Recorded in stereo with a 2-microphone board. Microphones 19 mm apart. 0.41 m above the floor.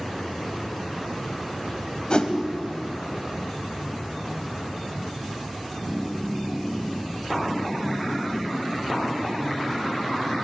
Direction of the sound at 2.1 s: 50° left (ahead or behind).